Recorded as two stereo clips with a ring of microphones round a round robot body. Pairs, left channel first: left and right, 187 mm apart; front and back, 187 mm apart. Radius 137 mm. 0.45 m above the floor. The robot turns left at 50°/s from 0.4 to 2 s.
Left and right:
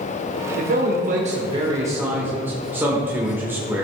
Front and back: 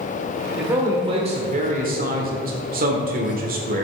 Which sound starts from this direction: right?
A man speaking, at 0.6 s.